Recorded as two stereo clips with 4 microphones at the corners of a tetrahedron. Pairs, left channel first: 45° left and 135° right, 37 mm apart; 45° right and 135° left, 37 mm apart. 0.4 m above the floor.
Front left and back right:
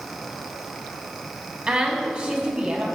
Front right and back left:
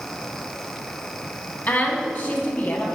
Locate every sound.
1.7 s a woman speaking: 75° right, 3 m